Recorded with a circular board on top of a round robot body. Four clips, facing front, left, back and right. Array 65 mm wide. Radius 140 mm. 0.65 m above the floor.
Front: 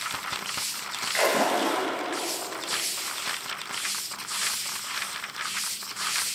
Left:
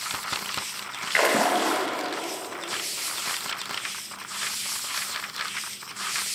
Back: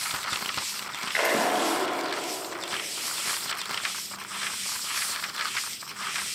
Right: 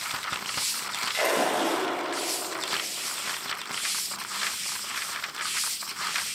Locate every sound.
1.1 s a splash: 95° left, 6.5 m